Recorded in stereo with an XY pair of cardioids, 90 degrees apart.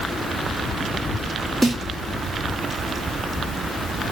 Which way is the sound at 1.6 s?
10° right.